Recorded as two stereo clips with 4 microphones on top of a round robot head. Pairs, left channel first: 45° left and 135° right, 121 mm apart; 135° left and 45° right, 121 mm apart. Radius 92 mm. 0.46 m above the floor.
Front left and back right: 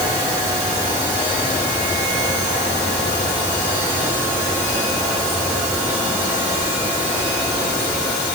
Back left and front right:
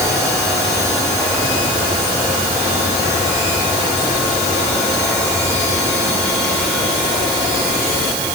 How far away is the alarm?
I don't hear an alarm.